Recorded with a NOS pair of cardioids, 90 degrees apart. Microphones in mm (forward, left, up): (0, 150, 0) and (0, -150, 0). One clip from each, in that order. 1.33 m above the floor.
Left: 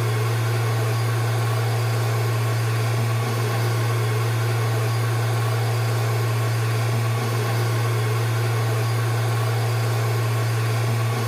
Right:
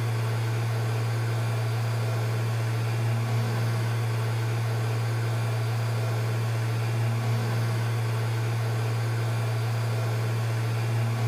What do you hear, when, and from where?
0.0 s a machine running: 65° left, 0.9 m